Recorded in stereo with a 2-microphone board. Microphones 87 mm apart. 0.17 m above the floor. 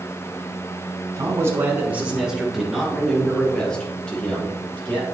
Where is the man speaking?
35° right (ahead or behind), 1.8 m; by 5.0 s 15° left (ahead or behind), 5 m.